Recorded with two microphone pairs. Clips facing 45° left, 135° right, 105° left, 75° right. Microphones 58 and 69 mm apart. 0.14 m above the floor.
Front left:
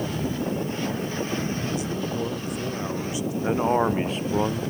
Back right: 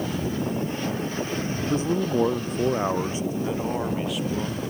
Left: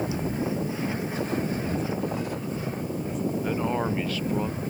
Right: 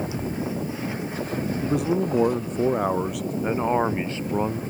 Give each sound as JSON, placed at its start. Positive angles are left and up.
{"t": 1.6, "sound": "a man speaking", "azimuth_deg": -85}
{"t": 3.4, "sound": "a man speaking", "azimuth_deg": -10}